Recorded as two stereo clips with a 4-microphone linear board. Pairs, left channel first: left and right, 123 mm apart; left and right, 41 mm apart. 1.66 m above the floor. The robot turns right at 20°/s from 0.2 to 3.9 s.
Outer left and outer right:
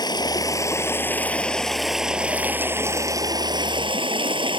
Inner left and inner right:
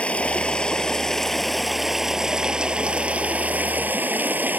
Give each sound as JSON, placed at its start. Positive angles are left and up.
{"t": 0.0, "sound": "running water", "azimuth_deg": 145}